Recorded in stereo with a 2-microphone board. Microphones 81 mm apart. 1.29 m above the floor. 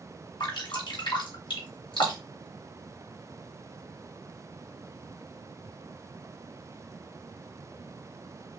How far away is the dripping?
About 2.5 m.